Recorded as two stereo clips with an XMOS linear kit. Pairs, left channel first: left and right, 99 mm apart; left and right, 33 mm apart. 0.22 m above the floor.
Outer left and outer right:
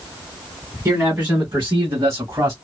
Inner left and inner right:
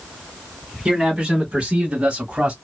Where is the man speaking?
15° right (ahead or behind), 1.5 m; by 2.5 s 30° right (ahead or behind), 1.1 m.